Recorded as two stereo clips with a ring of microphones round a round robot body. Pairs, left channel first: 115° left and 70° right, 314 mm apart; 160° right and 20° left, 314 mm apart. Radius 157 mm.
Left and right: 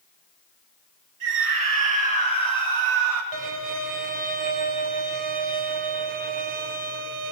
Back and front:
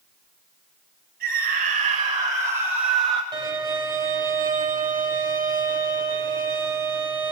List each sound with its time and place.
1.2 s a scream: 35° right, 2.5 m; by 3.2 s 70° right, 2 m
3.3 s a violin: 55° right, 2 m